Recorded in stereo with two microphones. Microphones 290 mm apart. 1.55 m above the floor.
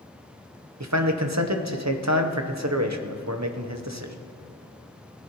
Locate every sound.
0.8 s a man speaking: 65° right (ahead or behind), 0.9 m